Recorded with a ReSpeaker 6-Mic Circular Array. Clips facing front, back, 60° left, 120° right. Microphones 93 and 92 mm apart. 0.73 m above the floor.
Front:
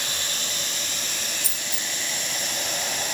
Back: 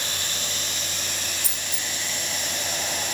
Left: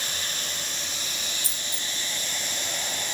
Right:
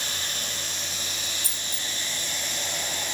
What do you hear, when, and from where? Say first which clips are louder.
1.4 s a dropped coin: even, even; 135° right